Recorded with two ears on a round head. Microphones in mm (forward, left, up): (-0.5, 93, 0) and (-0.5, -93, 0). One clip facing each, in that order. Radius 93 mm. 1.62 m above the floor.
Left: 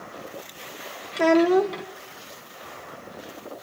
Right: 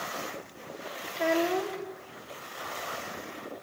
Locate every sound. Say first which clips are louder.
1.1 s a child speaking: left 10 dB; 70° left (ahead or behind), 1.0 m